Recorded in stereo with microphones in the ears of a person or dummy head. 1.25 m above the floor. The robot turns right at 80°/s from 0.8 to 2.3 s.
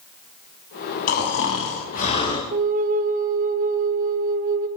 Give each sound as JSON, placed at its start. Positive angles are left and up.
{"t": 1.1, "sound": "snoring", "azimuth_deg": 50, "distance_m": 6.0}
{"t": 2.5, "sound": "a flute", "side_deg": -55, "distance_m": 1.9}